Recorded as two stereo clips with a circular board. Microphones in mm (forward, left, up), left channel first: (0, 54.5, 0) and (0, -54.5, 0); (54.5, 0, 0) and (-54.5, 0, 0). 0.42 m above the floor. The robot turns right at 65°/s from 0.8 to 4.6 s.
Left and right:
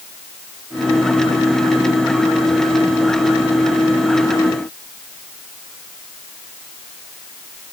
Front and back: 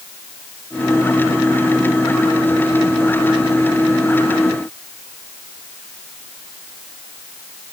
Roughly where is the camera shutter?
No camera shutter in this recording.